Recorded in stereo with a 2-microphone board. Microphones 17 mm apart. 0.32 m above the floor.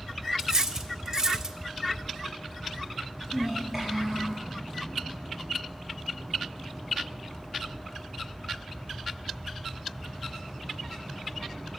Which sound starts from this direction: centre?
A child speaking, at 3.3 s.